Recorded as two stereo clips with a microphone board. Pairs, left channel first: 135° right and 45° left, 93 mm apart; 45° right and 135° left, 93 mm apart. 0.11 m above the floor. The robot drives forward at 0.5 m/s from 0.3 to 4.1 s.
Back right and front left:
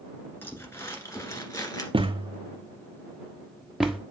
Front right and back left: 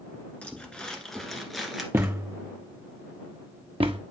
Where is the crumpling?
105° right, 1.7 m; by 1.8 s 140° right, 2.0 m.